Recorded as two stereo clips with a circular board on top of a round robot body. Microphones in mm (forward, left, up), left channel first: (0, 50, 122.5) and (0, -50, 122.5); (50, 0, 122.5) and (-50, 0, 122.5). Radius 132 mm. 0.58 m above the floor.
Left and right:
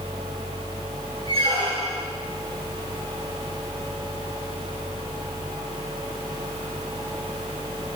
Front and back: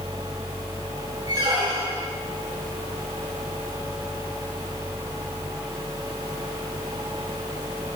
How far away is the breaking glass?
No breaking glass in this recording.